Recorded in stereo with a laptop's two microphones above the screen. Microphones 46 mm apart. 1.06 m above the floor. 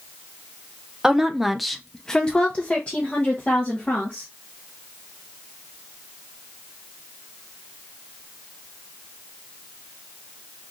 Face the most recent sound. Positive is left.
turn(degrees=35)  # may be behind; listen again after turning